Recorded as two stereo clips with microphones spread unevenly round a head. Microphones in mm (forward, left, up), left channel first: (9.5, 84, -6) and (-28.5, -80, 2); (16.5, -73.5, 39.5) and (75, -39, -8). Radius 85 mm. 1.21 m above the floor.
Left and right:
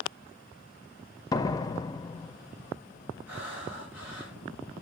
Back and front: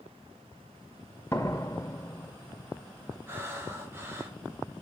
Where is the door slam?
145° left, 0.6 m.